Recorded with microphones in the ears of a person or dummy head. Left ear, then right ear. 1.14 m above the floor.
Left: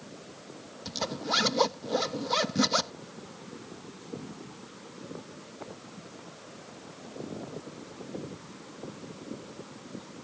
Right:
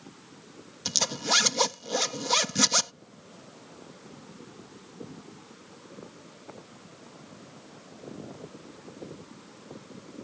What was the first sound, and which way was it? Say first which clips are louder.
A zipper: right 5 dB; 60° right (ahead or behind).